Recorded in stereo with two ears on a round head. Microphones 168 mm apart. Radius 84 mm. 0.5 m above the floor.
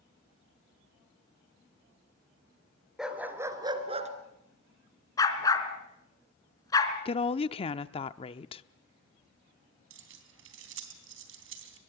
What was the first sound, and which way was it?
A dog barking, 5° right (ahead or behind).